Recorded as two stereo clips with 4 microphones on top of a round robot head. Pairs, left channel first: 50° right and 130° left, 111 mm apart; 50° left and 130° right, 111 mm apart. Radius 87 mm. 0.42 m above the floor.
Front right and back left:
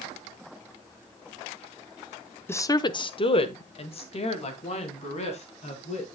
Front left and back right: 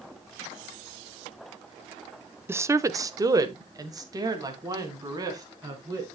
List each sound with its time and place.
2.5 s a woman speaking: 90° right, 0.8 m; by 6.1 s 75° right, 4.5 m